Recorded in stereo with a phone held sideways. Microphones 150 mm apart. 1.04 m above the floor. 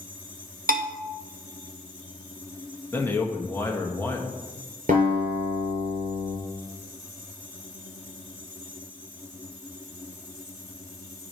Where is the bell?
70° right (ahead or behind), 0.8 m.